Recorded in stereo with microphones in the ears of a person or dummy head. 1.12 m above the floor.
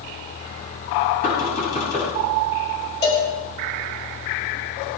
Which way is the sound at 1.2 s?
45° left (ahead or behind).